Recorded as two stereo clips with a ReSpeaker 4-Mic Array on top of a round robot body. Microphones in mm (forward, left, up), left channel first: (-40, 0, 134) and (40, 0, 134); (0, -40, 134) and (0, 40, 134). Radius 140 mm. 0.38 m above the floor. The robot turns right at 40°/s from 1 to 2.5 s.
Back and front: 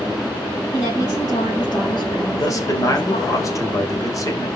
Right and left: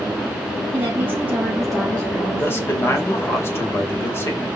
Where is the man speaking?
150° right, 2.5 m; by 4.5 s 145° right, 2.5 m.